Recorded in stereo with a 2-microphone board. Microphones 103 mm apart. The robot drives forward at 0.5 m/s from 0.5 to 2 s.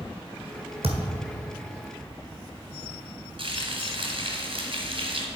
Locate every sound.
0.8 s a thud: 70° right (ahead or behind), 1.4 m; by 1.3 s 65° right (ahead or behind), 1.5 m
3.4 s frying: 60° right (ahead or behind), 1.7 m